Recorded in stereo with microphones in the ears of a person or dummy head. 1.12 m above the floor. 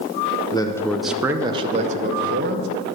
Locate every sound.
0.5 s a man speaking: 20° left (ahead or behind), 0.7 m; by 2.7 s 55° right (ahead or behind), 1.1 m